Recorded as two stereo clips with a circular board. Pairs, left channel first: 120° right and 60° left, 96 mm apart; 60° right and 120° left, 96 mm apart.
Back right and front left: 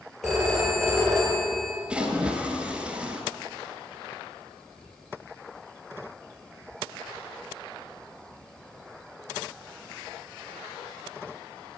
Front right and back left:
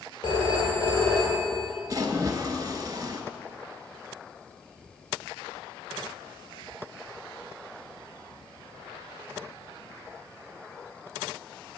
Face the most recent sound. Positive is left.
turn(degrees=130)